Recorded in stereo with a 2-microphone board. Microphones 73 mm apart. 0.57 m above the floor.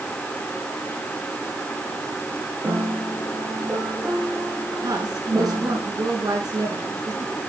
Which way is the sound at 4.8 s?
65° right (ahead or behind).